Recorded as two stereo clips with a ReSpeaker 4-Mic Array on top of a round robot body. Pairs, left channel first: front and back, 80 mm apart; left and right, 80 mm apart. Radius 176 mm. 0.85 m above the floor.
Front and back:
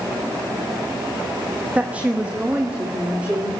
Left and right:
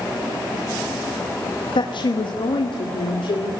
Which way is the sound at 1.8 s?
105° left.